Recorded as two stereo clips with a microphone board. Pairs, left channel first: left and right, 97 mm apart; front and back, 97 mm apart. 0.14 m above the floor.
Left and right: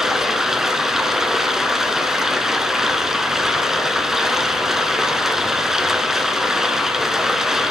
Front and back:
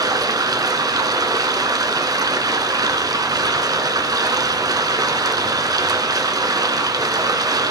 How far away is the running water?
About 1.0 m.